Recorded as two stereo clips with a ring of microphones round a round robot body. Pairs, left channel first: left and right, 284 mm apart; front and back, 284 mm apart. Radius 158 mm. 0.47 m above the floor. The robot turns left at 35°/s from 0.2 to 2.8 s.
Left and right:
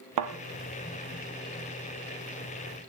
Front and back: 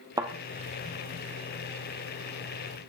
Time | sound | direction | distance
0.2 | a thud | 105° right | 2 m